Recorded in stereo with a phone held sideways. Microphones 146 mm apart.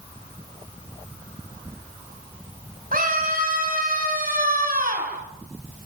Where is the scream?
65° right (ahead or behind), 5 m.